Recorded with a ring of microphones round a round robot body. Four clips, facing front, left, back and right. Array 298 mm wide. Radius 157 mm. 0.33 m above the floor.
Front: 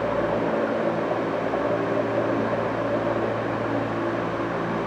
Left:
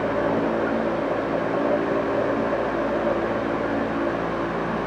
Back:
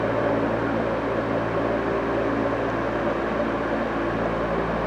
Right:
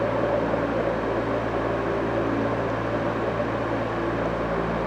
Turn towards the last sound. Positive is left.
No sound to turn to.